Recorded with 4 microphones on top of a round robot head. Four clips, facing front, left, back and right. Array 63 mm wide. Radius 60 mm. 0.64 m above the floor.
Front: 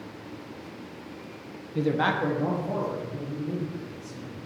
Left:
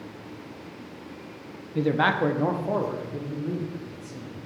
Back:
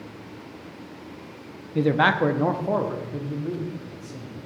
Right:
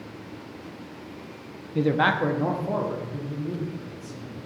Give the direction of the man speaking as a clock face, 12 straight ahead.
6 o'clock.